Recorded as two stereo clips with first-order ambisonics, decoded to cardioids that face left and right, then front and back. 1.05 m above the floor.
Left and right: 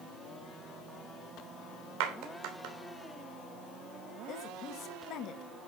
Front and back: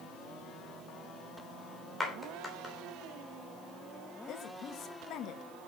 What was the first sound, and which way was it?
A clap, 85° right.